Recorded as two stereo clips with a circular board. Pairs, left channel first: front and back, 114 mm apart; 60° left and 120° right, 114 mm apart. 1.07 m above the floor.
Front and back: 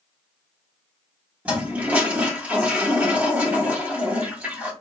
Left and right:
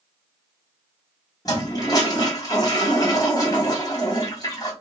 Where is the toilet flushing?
110° left, 1.1 m.